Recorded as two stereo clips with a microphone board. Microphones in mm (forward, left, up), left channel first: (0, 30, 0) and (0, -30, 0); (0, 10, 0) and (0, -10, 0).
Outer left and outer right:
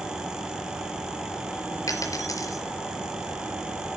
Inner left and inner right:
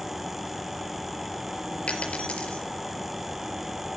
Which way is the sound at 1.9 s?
75° left (ahead or behind).